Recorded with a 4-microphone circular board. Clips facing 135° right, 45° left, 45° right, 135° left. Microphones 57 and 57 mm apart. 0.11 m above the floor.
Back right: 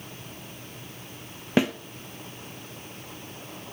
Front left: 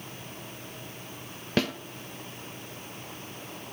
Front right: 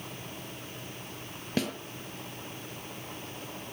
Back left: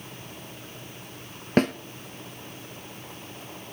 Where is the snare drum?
160° left, 1.0 m.